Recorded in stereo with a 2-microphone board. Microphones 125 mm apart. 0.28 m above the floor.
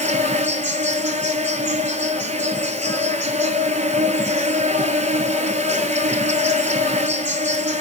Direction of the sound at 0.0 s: 70° right (ahead or behind).